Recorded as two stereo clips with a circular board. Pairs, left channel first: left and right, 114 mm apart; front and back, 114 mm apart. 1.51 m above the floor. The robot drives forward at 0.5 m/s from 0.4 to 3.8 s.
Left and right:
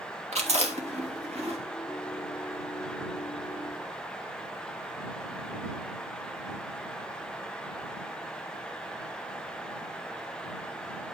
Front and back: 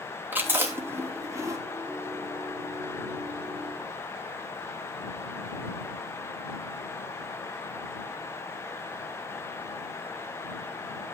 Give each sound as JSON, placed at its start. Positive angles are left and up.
{"t": 0.3, "sound": "chewing", "azimuth_deg": -105, "distance_m": 2.5}